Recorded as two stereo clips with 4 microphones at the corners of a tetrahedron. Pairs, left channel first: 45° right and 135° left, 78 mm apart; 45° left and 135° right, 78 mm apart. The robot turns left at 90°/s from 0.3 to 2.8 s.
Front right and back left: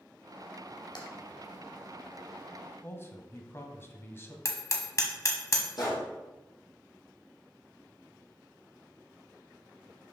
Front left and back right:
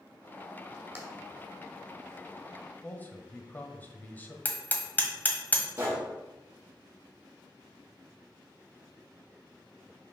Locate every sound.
0.9 s tapping: 75° right, 2 m; by 1.1 s 85° right, 2 m
2.8 s a man speaking: 10° right, 1.3 m
4.5 s hammering: 15° right, 1.3 m
5.8 s a gunshot: 75° right, 3.5 m